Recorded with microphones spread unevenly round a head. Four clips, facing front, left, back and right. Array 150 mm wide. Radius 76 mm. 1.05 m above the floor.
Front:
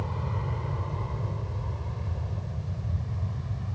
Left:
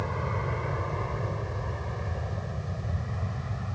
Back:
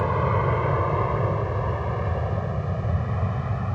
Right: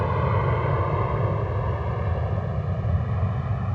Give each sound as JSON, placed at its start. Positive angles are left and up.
{"t": 0.0, "sound": "an aircraft", "azimuth_deg": -155}